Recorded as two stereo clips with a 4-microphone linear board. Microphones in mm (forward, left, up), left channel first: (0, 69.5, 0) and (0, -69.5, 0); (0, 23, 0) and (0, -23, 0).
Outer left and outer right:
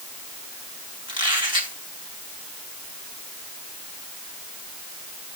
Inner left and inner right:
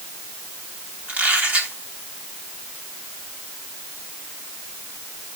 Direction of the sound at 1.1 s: 35° right (ahead or behind).